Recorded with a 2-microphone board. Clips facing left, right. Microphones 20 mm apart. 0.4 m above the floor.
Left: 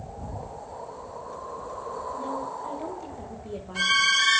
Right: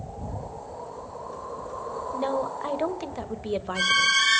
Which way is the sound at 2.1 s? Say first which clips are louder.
Right 8 dB; 55° right (ahead or behind).